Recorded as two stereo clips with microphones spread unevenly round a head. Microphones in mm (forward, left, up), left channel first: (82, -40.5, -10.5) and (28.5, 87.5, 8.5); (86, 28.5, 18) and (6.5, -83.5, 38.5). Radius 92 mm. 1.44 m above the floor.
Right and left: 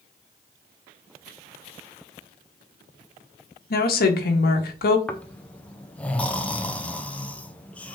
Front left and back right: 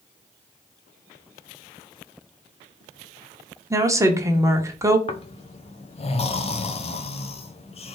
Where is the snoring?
10° left, 0.8 m.